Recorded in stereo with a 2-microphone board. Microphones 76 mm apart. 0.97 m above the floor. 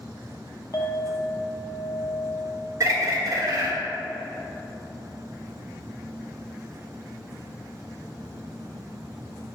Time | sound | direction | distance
0.7 | a clink | 45° left (ahead or behind) | 0.7 m
2.8 | a bird | 45° right (ahead or behind) | 1.3 m